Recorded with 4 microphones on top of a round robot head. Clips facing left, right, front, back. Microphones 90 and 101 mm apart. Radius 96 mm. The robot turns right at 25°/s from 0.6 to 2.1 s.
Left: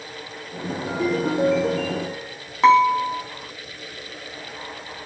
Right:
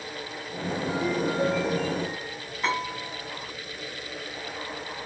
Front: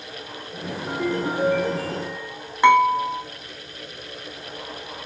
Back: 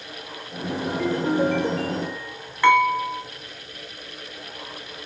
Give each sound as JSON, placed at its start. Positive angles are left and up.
{"t": 0.9, "sound": "a ringtone", "azimuth_deg": 60, "distance_m": 2.0}
{"t": 2.6, "sound": "dishes clattering", "azimuth_deg": 70, "distance_m": 3.0}